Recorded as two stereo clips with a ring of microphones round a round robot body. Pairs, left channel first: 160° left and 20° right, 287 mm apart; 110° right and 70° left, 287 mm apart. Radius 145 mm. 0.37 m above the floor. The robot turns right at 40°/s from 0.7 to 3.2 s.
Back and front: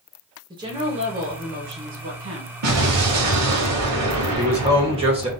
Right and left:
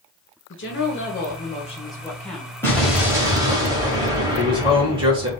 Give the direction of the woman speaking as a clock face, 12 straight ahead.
3 o'clock.